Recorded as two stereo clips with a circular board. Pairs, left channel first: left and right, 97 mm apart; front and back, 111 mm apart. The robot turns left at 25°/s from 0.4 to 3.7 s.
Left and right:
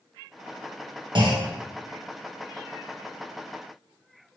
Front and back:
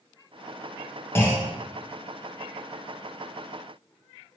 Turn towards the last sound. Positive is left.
turn(degrees=-130)